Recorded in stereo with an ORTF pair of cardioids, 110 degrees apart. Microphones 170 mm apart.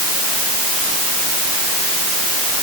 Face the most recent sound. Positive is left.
No sound to turn to.